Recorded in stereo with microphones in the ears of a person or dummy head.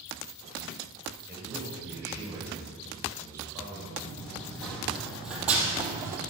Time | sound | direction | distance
1.3 | a man speaking | 15° right (ahead or behind) | 6.5 m
4.0 | running footsteps | 5° left (ahead or behind) | 3 m